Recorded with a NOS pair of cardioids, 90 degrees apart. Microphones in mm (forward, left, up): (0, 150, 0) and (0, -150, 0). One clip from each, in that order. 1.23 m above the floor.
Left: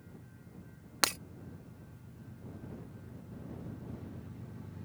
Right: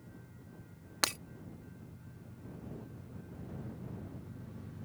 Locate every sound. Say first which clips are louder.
1.0 s breaking glass: left 2 dB; 15° left